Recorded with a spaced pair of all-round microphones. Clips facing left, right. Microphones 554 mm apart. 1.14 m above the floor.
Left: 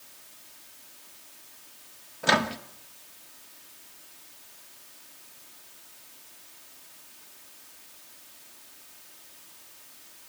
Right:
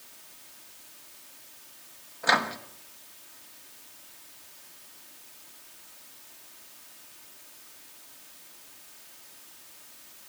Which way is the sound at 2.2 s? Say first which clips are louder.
Left 4 dB; 55° left (ahead or behind).